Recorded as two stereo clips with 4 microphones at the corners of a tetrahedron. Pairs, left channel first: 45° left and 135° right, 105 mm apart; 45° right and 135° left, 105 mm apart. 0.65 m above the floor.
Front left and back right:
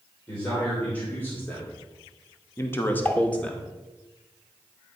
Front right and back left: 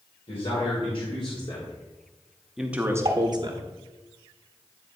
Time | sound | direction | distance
0.3 | a man speaking | 30° right | 2.5 m
3.0 | dishes clattering | 120° left | 1.1 m